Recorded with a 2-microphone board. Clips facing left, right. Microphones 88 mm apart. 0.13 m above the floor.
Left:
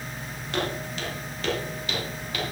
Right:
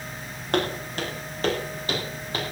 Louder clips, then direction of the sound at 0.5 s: Right 4 dB; 50° right (ahead or behind).